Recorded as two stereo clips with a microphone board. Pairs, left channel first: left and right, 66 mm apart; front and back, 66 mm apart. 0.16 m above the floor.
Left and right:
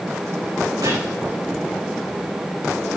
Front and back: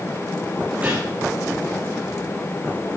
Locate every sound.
0.8 s a gunshot: 115° right, 8 m